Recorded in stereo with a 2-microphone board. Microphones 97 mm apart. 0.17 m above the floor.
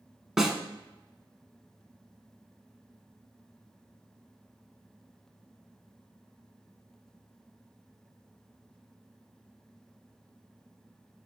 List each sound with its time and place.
0.4 s a snare drum: 5° right (ahead or behind), 0.5 m